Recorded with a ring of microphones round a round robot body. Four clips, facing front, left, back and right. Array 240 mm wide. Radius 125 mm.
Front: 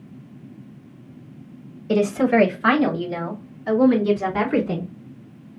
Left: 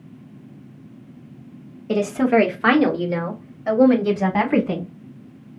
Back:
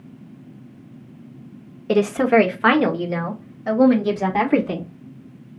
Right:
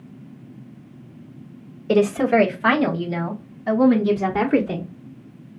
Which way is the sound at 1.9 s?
155° right.